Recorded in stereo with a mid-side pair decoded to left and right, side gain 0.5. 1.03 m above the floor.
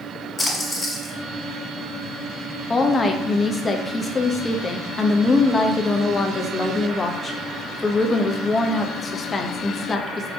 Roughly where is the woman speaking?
Ahead left.